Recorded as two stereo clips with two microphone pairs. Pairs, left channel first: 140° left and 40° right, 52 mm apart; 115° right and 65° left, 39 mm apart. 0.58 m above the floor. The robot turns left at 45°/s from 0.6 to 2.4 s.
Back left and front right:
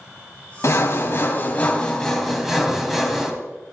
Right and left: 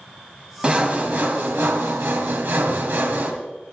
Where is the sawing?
130° left, 1.9 m; by 3.3 s 50° left, 1.9 m.